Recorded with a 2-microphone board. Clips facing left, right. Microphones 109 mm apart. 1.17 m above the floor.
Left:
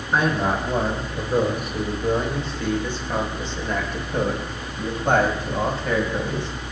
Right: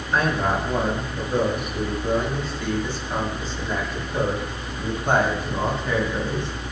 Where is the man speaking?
30° left (ahead or behind), 5.5 m; by 6.5 s 85° left, 7 m.